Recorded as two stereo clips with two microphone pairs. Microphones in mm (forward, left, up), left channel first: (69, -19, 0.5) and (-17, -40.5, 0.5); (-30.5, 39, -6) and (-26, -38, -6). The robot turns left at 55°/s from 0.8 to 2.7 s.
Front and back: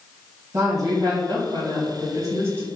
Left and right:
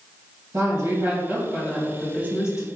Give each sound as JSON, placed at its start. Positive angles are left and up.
{"t": 0.5, "sound": "a woman speaking", "azimuth_deg": -130, "distance_m": 1.7}